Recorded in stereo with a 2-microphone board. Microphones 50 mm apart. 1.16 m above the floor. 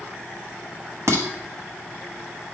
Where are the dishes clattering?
70° right (ahead or behind), 1.1 m.